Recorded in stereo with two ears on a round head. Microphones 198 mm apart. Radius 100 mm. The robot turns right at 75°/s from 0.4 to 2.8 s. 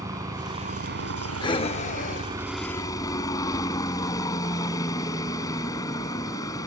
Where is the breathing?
20° left (ahead or behind); by 4.5 s 25° left (ahead or behind).